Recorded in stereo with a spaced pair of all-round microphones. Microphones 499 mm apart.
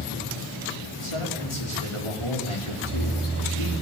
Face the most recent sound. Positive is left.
turn(degrees=75)  # may be behind; listen again after turning